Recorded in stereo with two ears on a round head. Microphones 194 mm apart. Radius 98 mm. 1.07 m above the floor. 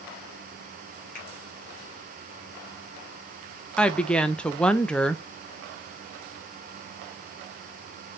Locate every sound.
1.1 s a finger snap: 40° left (ahead or behind), 1.9 m
3.8 s a woman speaking: 5° left (ahead or behind), 0.5 m